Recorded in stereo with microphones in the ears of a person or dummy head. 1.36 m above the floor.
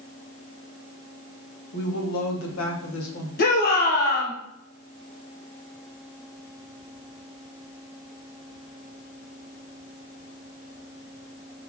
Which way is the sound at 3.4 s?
50° left (ahead or behind).